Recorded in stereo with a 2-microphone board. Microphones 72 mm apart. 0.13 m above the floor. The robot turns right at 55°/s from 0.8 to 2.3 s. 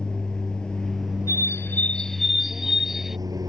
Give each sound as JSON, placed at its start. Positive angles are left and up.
{"t": 0.0, "sound": "an aircraft", "azimuth_deg": 170}
{"t": 1.3, "sound": "a bird", "azimuth_deg": 125}